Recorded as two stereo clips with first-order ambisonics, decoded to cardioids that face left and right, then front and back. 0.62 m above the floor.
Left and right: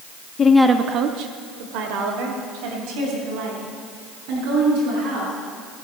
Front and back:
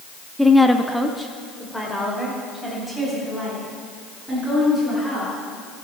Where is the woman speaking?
90° left, 0.7 m; by 5.3 s 85° right, 7.5 m.